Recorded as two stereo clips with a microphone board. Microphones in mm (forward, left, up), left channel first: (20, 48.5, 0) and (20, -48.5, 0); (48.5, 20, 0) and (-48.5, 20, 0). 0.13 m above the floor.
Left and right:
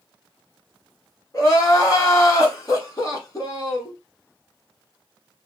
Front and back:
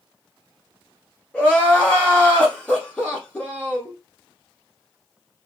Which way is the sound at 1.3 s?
70° left.